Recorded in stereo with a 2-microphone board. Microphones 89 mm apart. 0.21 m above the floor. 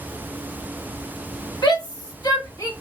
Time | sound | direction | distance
1.6 | a shout | 50° left (ahead or behind) | 1.7 m